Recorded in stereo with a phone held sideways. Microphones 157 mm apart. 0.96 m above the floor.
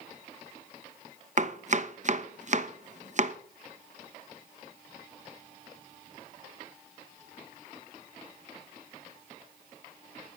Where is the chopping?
50° right (ahead or behind), 1.0 m.